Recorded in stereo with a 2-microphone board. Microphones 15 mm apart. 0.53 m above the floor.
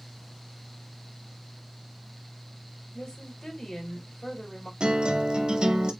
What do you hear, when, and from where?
2.9 s a woman speaking: 60° left (ahead or behind), 2.5 m
4.8 s a guitar: 85° right, 0.9 m